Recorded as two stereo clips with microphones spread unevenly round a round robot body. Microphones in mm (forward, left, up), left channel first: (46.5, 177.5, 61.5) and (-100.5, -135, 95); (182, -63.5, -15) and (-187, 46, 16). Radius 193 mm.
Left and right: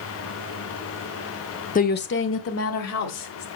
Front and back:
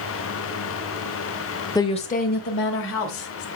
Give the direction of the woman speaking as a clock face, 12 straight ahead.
10 o'clock.